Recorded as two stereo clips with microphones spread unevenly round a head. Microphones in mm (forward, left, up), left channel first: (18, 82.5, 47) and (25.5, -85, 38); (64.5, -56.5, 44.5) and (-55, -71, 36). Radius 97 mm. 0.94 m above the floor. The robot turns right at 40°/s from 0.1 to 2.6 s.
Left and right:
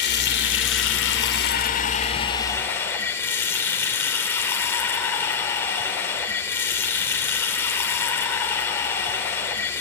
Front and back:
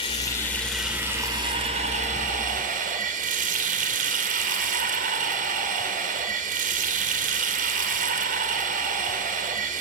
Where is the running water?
70° left, 3 m; by 9.8 s 170° left, 3 m.